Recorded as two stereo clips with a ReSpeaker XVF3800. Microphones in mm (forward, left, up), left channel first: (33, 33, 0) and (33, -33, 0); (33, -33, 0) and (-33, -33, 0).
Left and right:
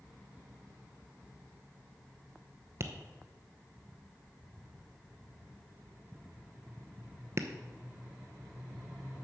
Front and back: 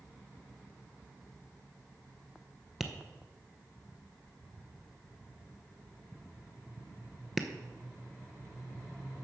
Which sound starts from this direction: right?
Tapping, at 2.8 s.